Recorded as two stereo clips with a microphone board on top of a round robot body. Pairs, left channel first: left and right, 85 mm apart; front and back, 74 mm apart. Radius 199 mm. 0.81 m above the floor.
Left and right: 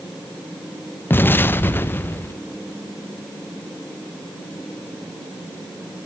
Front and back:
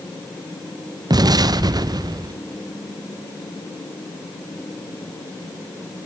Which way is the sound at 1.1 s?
155° left.